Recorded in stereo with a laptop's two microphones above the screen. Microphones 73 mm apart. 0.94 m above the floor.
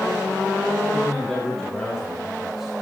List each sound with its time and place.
0.9 s a man speaking: 10° left (ahead or behind), 6 m; by 2.7 s 5° right (ahead or behind), 5 m